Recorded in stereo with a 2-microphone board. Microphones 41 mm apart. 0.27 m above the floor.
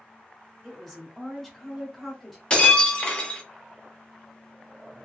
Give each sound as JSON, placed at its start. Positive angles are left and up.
{"t": 0.6, "sound": "a woman speaking", "side_deg": 5, "distance_m": 1.1}
{"t": 2.5, "sound": "breaking glass", "side_deg": 25, "distance_m": 0.9}